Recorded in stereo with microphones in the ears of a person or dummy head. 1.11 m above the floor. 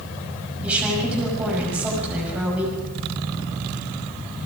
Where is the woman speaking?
10° right (ahead or behind), 5.5 m.